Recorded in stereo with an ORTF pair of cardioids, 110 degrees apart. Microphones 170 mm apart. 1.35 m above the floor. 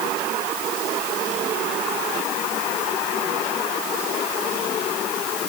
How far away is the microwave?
I don't hear a microwave.